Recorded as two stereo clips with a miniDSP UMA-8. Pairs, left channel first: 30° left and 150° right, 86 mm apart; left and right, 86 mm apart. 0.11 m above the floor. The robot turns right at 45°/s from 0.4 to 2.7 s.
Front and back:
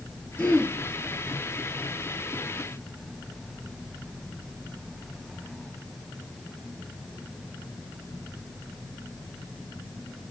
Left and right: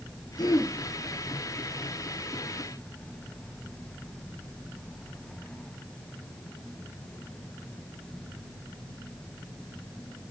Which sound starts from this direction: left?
Throat clearing, at 0.4 s.